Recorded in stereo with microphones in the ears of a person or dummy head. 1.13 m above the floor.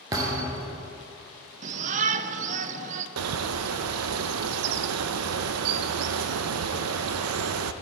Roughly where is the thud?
Right.